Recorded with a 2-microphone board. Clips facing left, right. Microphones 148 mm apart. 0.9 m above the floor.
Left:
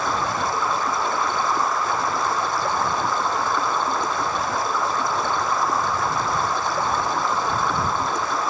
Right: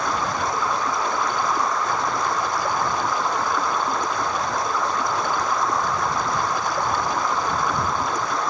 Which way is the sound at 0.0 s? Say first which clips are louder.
Even; centre (ahead or behind).